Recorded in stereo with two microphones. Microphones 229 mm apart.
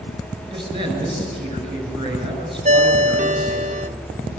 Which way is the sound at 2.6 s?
30° right (ahead or behind).